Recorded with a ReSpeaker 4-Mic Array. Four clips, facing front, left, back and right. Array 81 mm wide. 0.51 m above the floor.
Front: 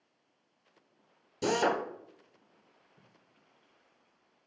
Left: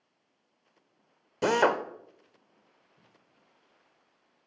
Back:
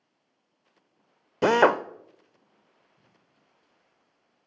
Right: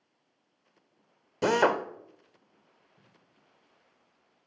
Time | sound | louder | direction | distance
1.4 | a drill | even, back 9 dB | straight behind | 0.5 m
3.0 | tape being pulled | even, even | straight ahead | 2 m